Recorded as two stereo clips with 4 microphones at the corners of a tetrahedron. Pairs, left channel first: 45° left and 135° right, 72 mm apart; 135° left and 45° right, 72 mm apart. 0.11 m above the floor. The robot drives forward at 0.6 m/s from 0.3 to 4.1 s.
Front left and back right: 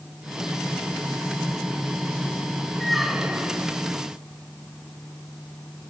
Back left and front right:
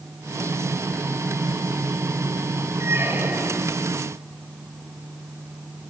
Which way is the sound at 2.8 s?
40° right.